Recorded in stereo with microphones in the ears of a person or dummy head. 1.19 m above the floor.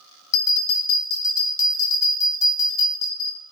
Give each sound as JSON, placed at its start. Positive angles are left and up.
{"t": 0.3, "sound": "a bell", "side_deg": 20, "distance_m": 0.7}